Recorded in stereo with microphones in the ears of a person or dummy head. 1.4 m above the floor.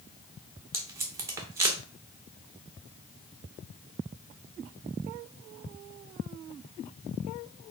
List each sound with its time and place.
0.7 s tape being pulled: 20° right (ahead or behind), 0.9 m